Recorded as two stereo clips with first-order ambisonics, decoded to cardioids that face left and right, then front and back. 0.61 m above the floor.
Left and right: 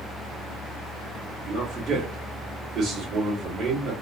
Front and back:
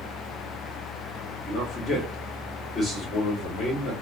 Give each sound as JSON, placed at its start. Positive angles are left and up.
{"t": 1.5, "sound": "a man speaking", "azimuth_deg": -55, "distance_m": 1.5}